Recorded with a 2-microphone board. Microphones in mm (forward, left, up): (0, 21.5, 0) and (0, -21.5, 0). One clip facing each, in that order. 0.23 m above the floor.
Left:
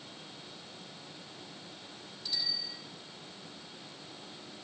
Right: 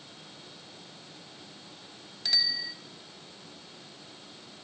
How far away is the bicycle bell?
About 2.5 m.